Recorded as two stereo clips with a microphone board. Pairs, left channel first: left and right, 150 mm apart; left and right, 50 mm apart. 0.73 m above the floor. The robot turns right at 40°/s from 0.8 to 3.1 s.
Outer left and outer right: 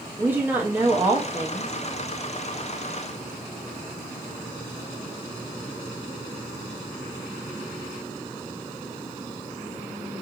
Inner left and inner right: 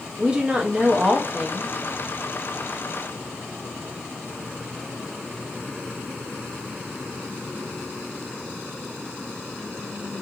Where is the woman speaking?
15° right (ahead or behind), 0.9 m; by 1.7 s 20° right (ahead or behind), 0.9 m.